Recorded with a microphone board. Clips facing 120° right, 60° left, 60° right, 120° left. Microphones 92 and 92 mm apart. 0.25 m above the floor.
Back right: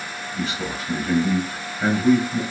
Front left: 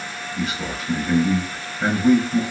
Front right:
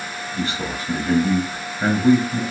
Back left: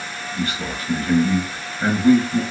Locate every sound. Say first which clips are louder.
0.3 s a man speaking: even, even; 30° right, 1.1 m